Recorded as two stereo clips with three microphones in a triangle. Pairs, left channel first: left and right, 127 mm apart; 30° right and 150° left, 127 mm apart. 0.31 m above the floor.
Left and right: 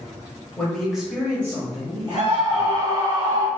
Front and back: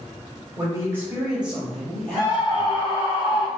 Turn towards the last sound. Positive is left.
turn(degrees=-85)